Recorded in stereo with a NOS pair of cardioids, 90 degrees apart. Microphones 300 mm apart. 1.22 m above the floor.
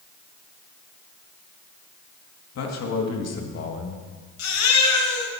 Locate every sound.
2.5 s a man speaking: 60° left, 2.5 m
4.4 s a baby crying: 70° left, 3.5 m